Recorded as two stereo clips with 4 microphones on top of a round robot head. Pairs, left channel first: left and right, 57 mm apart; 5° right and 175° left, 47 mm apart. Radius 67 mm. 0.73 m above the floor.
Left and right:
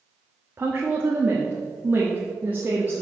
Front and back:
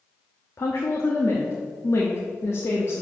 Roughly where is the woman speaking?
Ahead right.